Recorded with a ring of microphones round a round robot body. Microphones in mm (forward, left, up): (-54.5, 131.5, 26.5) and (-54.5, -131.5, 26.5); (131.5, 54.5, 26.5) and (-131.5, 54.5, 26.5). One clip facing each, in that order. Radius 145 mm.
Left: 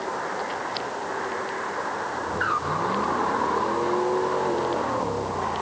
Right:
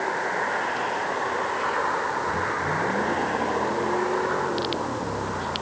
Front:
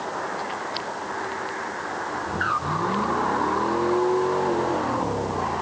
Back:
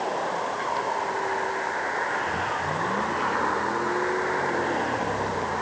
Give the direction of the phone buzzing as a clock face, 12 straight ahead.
No phone buzzing in this recording.